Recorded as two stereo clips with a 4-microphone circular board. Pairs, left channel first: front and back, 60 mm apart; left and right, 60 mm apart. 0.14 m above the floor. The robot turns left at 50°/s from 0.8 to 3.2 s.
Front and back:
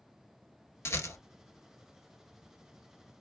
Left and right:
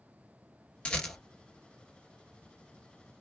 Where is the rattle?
20° left, 1.1 m; by 1.2 s 5° left, 1.1 m.